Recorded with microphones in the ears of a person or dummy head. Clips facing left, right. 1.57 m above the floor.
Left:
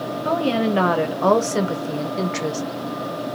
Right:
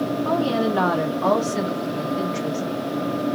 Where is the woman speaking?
30° left (ahead or behind), 1.5 m; by 2.6 s 80° left, 0.9 m.